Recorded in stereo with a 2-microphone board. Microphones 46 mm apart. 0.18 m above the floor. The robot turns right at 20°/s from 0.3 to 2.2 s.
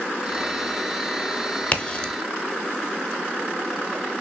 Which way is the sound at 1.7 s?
25° left (ahead or behind).